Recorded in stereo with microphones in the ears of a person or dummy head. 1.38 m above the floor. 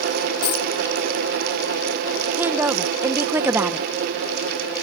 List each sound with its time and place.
0.4 s a dropped coin: 55° left (ahead or behind)
2.4 s a woman speaking: 10° right (ahead or behind)